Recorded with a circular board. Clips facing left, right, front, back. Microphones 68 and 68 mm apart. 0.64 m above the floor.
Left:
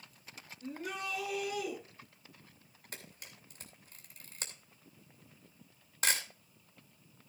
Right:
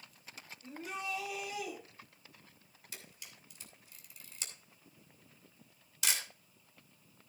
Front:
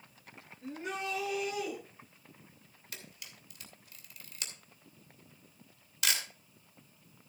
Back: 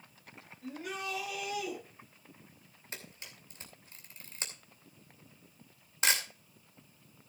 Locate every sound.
0.6 s a shout: 65° left, 7.5 m; by 1.8 s 60° left, 7.5 m
2.9 s a camera shutter: 125° left, 2.5 m